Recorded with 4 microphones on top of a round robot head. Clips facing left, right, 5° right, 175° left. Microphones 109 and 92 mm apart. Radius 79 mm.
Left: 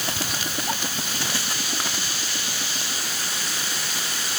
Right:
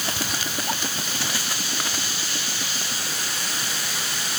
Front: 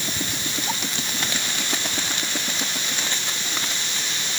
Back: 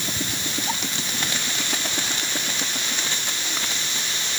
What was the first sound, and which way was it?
Only background noise.